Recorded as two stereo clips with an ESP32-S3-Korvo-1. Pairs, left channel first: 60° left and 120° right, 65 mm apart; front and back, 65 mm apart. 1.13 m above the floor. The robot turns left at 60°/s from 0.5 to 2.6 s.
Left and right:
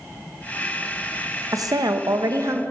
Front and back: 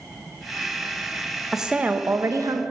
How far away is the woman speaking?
About 0.7 m.